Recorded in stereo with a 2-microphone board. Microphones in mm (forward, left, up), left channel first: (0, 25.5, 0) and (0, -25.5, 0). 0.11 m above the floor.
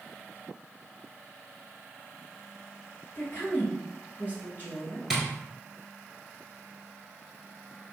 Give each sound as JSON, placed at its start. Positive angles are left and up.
{"t": 3.1, "sound": "a woman speaking", "side_deg": 35, "distance_m": 1.4}
{"t": 5.1, "sound": "tapping", "side_deg": -5, "distance_m": 0.9}